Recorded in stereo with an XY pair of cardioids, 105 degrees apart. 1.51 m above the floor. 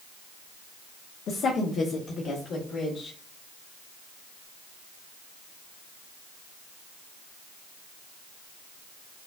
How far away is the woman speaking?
About 0.6 m.